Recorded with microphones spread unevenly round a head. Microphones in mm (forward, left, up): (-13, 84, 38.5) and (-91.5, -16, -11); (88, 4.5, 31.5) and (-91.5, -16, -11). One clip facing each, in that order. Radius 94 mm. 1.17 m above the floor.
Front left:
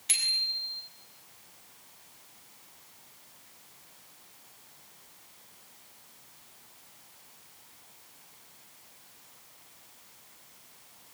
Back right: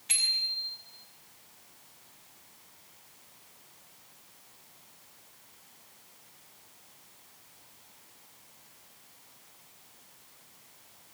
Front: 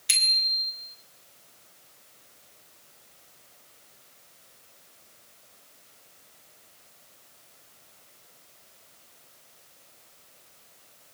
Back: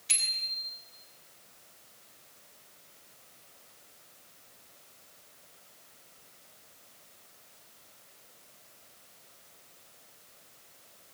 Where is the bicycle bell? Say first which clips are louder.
Even, front 7 dB; 10° right, 5 m.